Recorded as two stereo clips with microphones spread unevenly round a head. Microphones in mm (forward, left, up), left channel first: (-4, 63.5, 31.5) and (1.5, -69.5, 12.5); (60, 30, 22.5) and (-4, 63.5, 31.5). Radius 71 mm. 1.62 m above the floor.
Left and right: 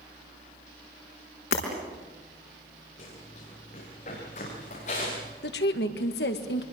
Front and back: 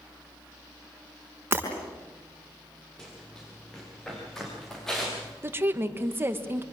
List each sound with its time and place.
1.5 s breaking glass: 100° left, 5 m
3.0 s running footsteps: 55° left, 10 m; by 5.3 s 60° left, 9 m
5.4 s a woman speaking: 95° left, 2.0 m